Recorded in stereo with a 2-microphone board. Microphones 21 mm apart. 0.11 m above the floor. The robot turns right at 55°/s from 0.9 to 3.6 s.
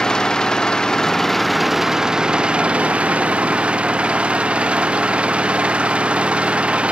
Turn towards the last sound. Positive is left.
turn(degrees=-70)